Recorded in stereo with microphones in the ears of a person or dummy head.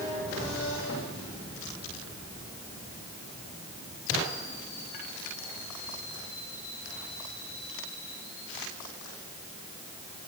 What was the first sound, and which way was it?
Only background noise.